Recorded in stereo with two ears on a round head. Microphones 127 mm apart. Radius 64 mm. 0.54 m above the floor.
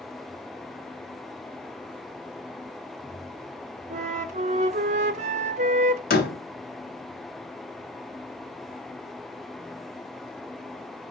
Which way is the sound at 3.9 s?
55° right (ahead or behind).